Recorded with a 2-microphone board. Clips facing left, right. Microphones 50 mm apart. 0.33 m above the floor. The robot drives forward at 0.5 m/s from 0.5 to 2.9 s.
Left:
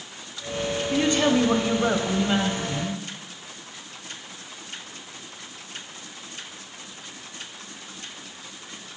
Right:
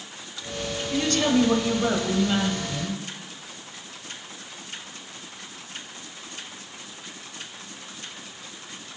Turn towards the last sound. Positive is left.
turn(degrees=10)  # may be behind; listen again after turning